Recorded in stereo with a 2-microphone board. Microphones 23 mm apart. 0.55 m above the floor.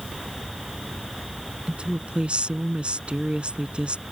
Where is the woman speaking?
70° right (ahead or behind).